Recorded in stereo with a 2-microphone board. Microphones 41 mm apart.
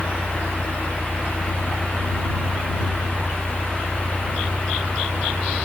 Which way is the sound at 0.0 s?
85° left.